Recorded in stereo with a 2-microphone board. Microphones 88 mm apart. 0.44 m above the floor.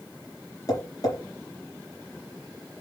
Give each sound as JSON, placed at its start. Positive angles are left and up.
{"t": 0.7, "sound": "tapping", "side_deg": 45, "distance_m": 4.0}